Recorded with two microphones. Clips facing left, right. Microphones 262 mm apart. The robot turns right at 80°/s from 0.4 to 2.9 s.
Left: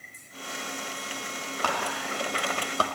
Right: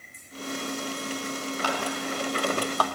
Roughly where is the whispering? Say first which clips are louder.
Right 1 dB; left.